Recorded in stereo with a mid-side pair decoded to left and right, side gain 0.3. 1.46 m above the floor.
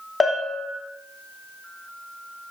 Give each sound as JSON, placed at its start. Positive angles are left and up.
{"t": 0.2, "sound": "a bell", "azimuth_deg": 40, "distance_m": 0.8}